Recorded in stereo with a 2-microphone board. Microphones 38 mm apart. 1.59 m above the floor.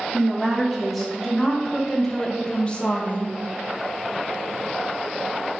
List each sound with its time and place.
0.1 s a woman speaking: 10° right (ahead or behind), 1.9 m; by 3.4 s 45° left (ahead or behind), 0.7 m